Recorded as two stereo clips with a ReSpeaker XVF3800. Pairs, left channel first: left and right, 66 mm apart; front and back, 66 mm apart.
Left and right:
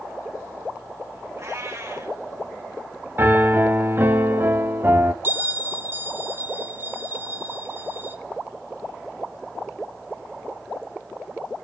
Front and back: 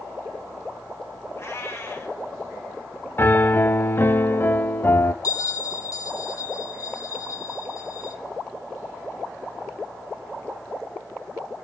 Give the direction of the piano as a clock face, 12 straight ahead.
2 o'clock.